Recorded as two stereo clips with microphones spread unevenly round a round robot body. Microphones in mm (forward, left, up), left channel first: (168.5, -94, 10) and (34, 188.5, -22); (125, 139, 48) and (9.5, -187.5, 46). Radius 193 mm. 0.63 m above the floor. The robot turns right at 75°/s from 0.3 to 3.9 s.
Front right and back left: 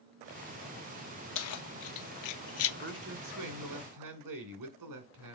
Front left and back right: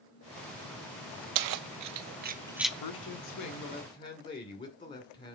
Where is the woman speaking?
65° left, 2 m; by 5.4 s 150° left, 2 m.